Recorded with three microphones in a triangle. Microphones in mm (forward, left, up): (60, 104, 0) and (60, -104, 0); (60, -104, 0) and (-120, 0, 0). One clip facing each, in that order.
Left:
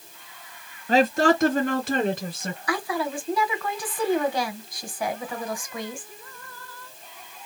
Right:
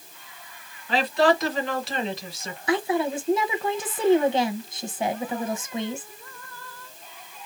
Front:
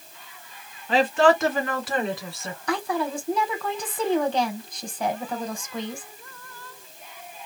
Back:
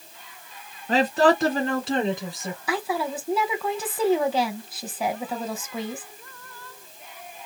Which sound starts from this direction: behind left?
A woman speaking, at 0.9 s.